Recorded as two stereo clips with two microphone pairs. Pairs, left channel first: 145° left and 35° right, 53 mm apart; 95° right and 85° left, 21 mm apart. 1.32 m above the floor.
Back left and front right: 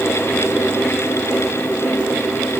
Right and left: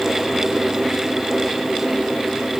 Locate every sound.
Only background noise.